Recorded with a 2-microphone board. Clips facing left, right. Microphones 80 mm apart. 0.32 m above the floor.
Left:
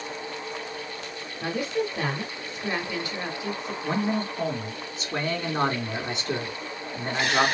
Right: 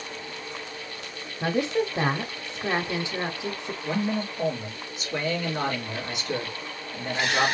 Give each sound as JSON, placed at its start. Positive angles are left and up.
{"t": 1.4, "sound": "a woman speaking", "side_deg": -25, "distance_m": 1.0}
{"t": 3.8, "sound": "a man speaking", "side_deg": 35, "distance_m": 3.0}